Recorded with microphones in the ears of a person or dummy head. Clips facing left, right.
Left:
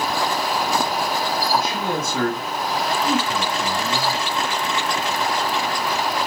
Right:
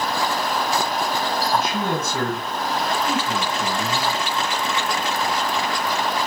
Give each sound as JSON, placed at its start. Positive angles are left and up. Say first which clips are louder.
{"t": 1.5, "sound": "a man speaking", "louder": "right 1 dB", "side_deg": -60, "distance_m": 2.0}